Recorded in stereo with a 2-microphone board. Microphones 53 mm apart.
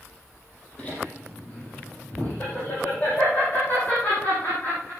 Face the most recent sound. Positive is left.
turn(degrees=30)  # may be behind; listen again after turning